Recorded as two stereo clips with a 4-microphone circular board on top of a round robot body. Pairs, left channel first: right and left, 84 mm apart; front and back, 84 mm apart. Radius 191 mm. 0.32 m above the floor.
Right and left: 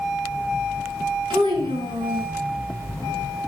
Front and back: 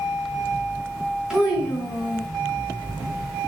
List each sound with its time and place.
1.3 s a child speaking: 100° left, 3.5 m